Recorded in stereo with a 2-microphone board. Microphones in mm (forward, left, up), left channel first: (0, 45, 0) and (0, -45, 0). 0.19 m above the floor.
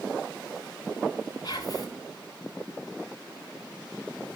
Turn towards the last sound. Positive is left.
turn(degrees=50)  # may be behind; listen again after turning